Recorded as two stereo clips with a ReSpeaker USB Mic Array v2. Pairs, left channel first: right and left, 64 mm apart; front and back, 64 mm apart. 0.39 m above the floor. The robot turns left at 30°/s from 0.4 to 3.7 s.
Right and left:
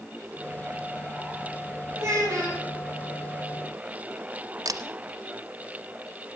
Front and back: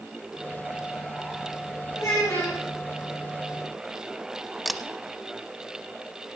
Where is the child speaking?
45° left, 6 m; by 2.6 s 25° left, 6 m.